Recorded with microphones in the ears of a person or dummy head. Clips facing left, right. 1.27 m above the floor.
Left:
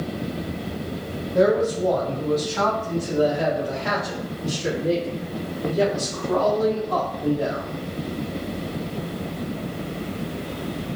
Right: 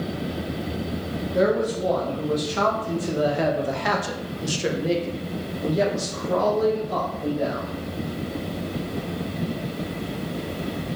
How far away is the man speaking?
About 1.9 m.